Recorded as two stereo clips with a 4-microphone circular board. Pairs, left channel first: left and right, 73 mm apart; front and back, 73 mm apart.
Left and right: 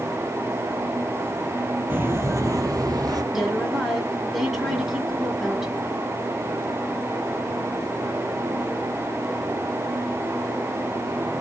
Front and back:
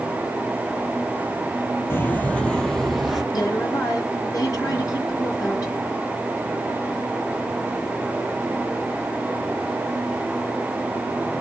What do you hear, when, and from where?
1.9 s footsteps: 40° right, 0.7 m; by 3.2 s 95° right, 1.0 m
3.3 s a woman speaking: 5° right, 1.9 m